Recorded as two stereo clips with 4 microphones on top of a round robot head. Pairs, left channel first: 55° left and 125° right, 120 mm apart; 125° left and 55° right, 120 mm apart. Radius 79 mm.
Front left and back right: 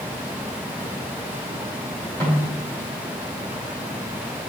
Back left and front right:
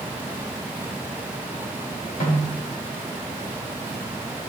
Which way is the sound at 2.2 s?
130° left.